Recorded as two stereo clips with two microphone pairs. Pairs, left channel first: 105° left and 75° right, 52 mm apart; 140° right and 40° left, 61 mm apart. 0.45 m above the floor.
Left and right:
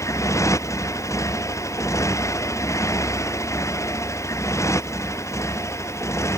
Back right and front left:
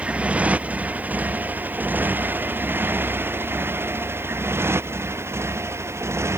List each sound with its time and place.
0.0 s a motorcycle: 110° left; by 6.4 s 85° left